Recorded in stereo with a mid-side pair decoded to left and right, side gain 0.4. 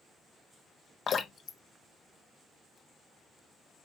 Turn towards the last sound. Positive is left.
turn(degrees=55)